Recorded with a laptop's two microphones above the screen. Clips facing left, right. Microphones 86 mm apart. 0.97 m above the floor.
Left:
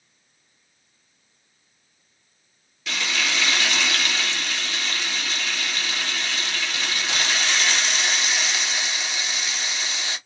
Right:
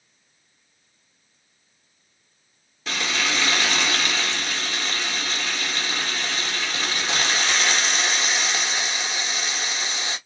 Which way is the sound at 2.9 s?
30° right (ahead or behind).